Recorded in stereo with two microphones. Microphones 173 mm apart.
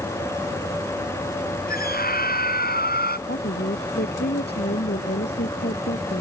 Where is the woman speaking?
75° left (ahead or behind).